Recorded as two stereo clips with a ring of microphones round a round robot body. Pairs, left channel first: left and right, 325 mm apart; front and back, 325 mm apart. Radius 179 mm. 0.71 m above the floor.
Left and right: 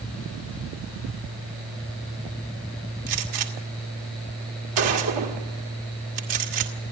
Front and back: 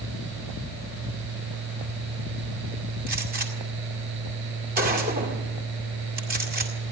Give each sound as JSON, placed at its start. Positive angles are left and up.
{"t": 3.1, "sound": "a gunshot", "azimuth_deg": -115, "distance_m": 2.0}